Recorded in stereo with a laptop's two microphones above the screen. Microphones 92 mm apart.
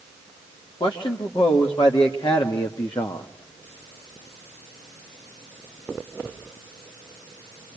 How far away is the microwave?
I don't hear a microwave.